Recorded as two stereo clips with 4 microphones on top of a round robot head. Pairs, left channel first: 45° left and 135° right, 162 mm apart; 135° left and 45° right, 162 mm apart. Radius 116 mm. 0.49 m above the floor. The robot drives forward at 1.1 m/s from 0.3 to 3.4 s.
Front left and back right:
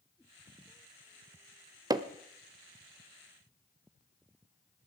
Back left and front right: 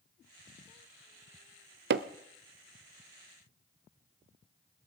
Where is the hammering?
65° right, 0.7 m; by 2.1 s 80° right, 0.6 m.